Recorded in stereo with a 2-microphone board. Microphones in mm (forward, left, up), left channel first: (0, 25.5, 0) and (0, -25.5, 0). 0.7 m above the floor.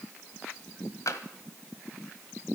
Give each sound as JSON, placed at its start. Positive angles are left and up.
{"t": 1.1, "sound": "tapping", "side_deg": 75, "distance_m": 1.4}